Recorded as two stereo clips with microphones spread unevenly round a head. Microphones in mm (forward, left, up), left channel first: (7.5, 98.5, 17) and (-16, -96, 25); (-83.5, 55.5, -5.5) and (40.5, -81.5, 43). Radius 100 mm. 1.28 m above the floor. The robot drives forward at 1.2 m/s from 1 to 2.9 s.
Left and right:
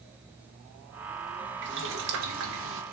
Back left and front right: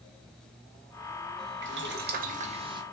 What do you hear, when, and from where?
1.6 s boiling: 70° right, 1.7 m; by 2.8 s 115° right, 1.8 m